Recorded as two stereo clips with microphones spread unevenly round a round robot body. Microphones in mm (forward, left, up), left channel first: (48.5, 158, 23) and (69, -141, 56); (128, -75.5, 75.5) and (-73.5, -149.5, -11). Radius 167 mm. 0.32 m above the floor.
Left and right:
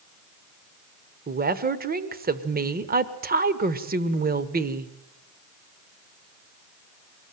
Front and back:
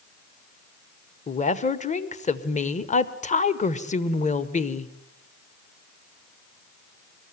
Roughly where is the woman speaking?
Ahead right.